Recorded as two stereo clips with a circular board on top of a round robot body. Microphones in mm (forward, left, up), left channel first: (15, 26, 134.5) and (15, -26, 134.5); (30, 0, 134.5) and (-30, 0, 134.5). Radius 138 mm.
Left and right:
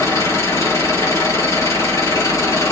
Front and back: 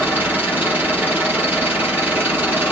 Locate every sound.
0.0 s an engine running: 120° left, 4 m